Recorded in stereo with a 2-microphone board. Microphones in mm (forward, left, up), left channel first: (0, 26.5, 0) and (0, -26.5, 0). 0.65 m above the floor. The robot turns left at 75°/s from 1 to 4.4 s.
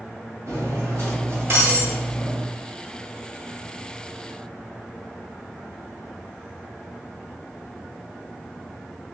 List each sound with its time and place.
0.5 s cutlery clinking: 85° right, 1.9 m; by 2.4 s 165° left, 1.9 m